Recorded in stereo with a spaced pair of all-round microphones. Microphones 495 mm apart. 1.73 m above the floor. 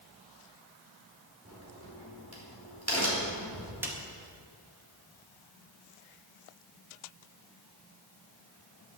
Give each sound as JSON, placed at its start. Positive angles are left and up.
{"t": 1.4, "sound": "a crack", "side_deg": -30, "distance_m": 4.5}
{"t": 3.8, "sound": "a snare drum", "side_deg": -5, "distance_m": 2.0}